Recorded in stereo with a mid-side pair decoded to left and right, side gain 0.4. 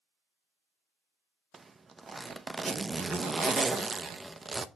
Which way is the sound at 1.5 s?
30° right.